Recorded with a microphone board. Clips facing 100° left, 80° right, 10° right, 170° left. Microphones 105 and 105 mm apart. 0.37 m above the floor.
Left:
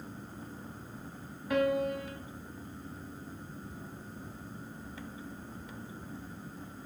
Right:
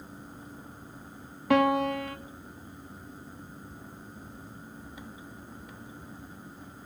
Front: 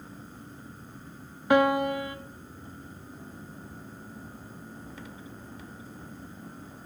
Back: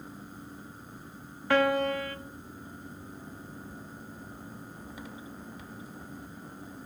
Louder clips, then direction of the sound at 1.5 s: Right 5 dB, front 3 dB; 85° right.